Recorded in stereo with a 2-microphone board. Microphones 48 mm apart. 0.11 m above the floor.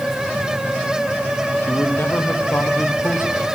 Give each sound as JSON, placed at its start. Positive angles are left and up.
{"t": 1.6, "sound": "a man speaking", "side_deg": 60, "distance_m": 3.5}